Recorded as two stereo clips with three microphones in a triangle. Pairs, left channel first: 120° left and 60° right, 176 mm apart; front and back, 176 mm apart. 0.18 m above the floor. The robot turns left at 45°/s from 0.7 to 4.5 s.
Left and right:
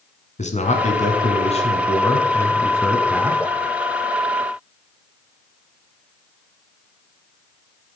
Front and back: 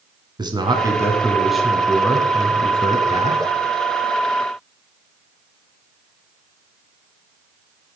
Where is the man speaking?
130° left, 1.3 m; by 3.4 s 5° left, 1.3 m.